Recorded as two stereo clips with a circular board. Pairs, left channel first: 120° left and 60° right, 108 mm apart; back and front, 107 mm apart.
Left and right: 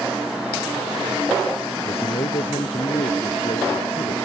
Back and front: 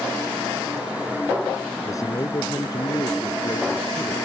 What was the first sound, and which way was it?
A man speaking, 125° left.